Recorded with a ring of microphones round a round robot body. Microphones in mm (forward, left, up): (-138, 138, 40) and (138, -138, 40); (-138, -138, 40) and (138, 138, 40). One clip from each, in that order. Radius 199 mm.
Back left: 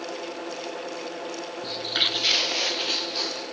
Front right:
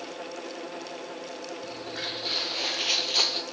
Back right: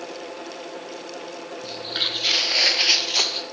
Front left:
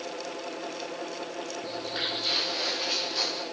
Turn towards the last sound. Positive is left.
turn(degrees=-95)